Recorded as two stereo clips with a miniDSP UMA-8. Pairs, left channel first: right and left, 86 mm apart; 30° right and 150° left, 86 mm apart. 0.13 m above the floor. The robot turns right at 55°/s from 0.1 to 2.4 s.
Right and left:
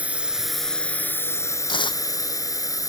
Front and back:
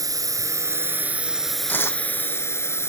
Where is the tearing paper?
100° right; by 2.0 s 80° right.